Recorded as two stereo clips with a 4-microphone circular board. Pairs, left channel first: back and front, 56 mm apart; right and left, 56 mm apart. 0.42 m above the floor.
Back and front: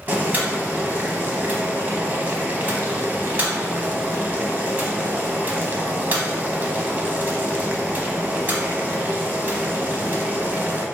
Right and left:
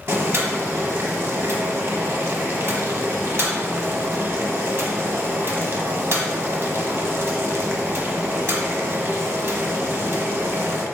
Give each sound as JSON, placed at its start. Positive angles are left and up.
{"t": 0.1, "sound": "boiling", "azimuth_deg": 50, "distance_m": 0.5}